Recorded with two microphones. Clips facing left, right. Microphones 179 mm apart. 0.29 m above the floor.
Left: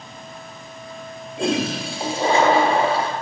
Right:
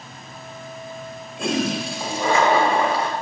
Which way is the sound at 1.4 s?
30° left (ahead or behind).